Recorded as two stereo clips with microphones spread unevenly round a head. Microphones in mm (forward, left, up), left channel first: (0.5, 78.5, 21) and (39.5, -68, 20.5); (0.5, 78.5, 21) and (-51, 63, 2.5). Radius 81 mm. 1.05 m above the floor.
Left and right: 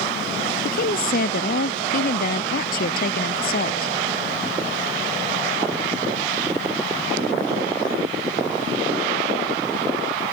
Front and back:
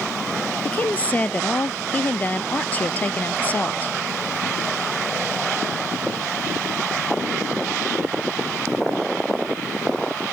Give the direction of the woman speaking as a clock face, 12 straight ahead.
9 o'clock.